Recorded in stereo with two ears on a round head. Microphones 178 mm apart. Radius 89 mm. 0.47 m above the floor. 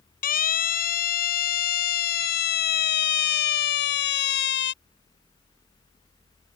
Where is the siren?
45° left (ahead or behind); by 4.7 s 60° left (ahead or behind).